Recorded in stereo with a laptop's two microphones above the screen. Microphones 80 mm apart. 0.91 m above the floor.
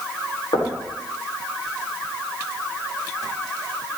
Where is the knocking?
80° left, 3 m.